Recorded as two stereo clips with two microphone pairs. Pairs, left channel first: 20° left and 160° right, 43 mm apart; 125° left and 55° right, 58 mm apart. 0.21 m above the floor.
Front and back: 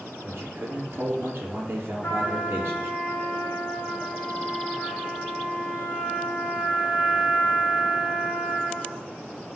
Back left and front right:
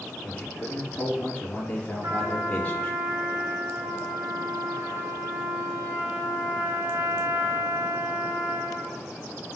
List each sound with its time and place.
0.2 s a man speaking: 175° right, 4 m
2.0 s a trumpet: 25° right, 3 m